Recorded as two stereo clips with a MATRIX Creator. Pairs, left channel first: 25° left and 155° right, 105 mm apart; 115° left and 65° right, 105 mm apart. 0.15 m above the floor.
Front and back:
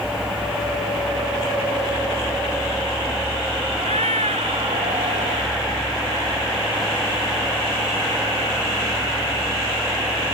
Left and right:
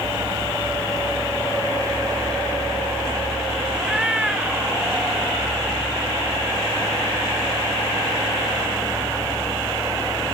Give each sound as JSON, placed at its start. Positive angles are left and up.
{"t": 3.8, "sound": "a cat meowing", "azimuth_deg": -150}